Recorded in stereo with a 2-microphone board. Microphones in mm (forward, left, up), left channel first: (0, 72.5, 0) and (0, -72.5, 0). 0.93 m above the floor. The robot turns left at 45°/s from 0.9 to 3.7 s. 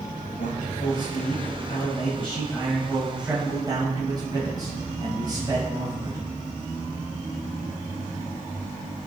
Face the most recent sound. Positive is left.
turn(degrees=-30)